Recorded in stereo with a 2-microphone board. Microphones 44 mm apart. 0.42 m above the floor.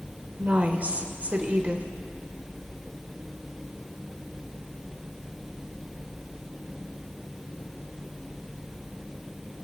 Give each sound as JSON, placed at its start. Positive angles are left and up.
{"t": 0.4, "sound": "a woman speaking", "side_deg": -35, "distance_m": 1.1}